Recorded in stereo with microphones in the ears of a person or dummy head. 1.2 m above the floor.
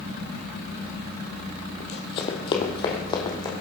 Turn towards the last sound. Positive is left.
turn(degrees=25)  # may be behind; listen again after turning